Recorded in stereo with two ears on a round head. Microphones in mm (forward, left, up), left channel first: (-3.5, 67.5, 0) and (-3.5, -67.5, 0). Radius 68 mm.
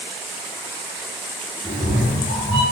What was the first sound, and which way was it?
A cat meowing, 20° right (ahead or behind).